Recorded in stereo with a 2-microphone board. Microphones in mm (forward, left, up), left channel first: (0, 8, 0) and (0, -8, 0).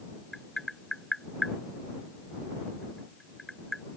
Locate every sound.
0.3 s tapping: 35° left (ahead or behind)